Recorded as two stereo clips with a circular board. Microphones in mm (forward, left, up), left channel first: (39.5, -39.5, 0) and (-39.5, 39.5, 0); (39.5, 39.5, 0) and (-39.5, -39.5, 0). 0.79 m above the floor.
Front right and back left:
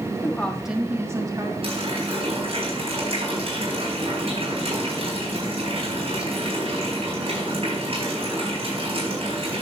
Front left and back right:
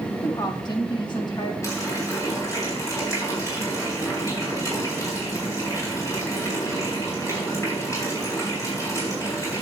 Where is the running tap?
105° left, 4 m.